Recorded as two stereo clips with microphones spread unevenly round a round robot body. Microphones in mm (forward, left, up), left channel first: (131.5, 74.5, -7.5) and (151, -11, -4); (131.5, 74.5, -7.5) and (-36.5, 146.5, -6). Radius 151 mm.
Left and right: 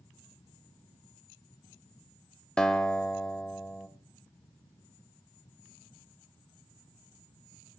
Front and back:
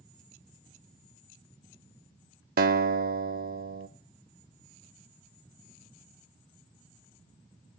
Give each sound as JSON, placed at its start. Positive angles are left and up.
{"t": 2.6, "sound": "a guitar", "azimuth_deg": -175, "distance_m": 0.5}